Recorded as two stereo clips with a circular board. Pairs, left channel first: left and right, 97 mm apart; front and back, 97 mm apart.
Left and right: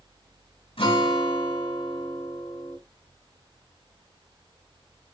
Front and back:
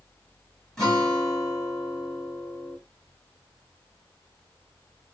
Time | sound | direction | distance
0.8 | a guitar | 85° left | 6 m